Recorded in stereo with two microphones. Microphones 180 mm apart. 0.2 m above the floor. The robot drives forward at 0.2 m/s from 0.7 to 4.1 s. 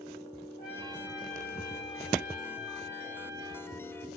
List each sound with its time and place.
0.6 s a trumpet: 50° left (ahead or behind), 6.5 m; by 3.8 s 45° left (ahead or behind), 7 m